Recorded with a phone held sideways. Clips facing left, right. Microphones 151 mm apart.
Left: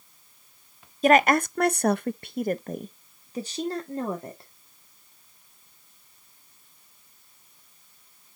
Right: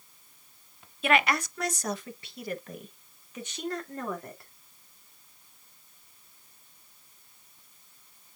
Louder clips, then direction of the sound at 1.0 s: Left 7 dB; 40° left (ahead or behind).